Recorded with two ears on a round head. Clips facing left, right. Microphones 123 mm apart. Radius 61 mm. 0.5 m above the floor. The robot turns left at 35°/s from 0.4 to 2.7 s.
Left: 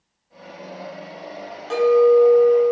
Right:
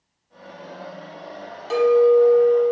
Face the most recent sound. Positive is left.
turn(degrees=-50)